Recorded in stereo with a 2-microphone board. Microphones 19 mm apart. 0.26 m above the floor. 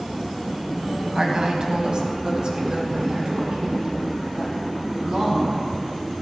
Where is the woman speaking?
40° right (ahead or behind), 1.8 m; by 5.6 s 55° right (ahead or behind), 6.5 m.